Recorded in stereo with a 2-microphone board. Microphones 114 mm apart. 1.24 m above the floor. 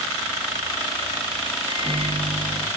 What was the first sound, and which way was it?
A microwave, 50° right (ahead or behind).